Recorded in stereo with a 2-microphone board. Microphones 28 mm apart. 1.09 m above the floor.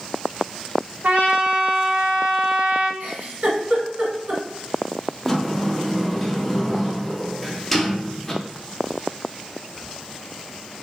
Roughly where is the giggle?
Right.